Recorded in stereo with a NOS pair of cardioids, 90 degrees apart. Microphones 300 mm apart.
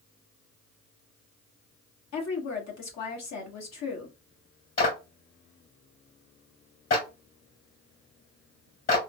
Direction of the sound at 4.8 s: 45° left.